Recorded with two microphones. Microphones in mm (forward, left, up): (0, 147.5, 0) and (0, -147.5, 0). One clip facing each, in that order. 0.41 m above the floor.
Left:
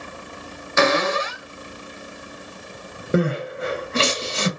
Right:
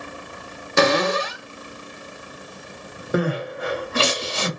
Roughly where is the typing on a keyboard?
I don't hear typing on a keyboard.